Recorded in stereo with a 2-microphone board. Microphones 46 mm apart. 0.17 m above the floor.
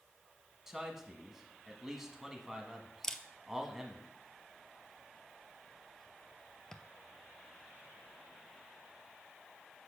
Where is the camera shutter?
15° left (ahead or behind), 0.5 m.